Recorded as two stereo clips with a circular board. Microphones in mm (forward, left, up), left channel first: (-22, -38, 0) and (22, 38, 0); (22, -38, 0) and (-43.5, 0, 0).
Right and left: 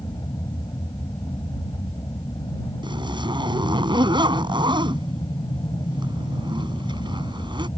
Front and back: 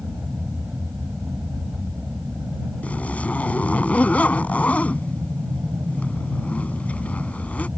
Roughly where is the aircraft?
Behind right.